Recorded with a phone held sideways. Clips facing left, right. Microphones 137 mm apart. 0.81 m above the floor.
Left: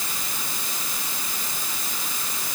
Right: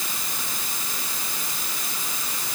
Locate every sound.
Only background noise.